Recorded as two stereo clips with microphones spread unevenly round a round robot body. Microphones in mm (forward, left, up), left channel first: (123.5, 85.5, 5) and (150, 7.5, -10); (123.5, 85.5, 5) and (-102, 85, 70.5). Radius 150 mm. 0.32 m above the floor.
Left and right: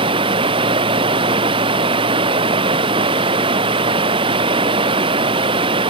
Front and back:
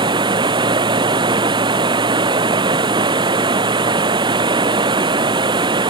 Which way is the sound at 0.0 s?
105° right.